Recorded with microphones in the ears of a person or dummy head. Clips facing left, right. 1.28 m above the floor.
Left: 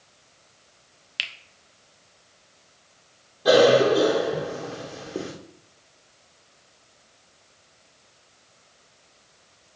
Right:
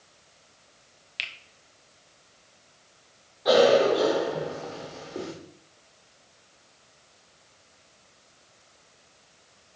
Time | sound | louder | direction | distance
1.2 | a finger snap | left 2 dB | 5° left (ahead or behind) | 0.7 m
3.5 | a cough | left 2 dB | 45° left (ahead or behind) | 1.4 m